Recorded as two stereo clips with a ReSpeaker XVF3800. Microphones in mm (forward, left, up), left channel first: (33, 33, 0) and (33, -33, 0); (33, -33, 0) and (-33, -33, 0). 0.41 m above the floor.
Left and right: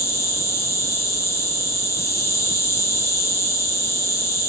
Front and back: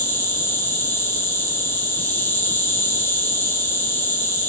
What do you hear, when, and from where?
0.0 s an insect: 55° left, 1.5 m